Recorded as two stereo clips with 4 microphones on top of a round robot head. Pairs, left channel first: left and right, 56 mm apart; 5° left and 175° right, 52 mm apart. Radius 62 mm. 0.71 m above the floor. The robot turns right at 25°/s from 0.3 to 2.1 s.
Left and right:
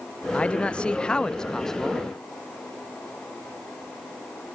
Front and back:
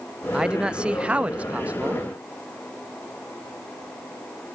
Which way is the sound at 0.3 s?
130° left.